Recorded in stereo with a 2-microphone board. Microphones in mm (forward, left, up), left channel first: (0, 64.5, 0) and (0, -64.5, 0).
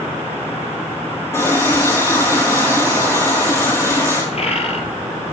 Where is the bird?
55° left (ahead or behind), 2.5 m.